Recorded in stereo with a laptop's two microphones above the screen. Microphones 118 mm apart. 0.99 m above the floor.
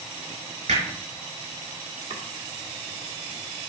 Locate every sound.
0.7 s hammering: 80° right, 4.5 m
2.1 s chopping: 65° right (ahead or behind), 1.4 m